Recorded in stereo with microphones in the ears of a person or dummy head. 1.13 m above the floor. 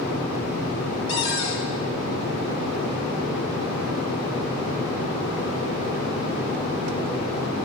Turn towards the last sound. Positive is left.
turn(degrees=80)